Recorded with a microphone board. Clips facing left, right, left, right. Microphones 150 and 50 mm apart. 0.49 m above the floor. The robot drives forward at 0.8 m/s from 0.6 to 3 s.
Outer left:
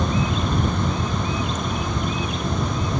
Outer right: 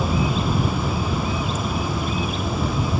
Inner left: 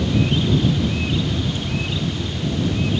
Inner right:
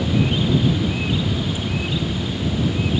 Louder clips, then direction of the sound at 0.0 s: Outer right 1 dB, even; 5° right (ahead or behind).